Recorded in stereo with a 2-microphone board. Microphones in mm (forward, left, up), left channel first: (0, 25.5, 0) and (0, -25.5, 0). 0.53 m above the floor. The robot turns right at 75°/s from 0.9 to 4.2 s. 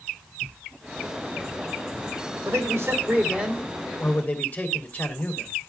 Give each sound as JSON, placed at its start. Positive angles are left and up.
{"t": 2.5, "sound": "a man speaking", "azimuth_deg": -90, "distance_m": 3.0}